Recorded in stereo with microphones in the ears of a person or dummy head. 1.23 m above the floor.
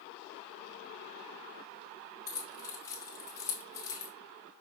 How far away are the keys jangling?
About 0.8 m.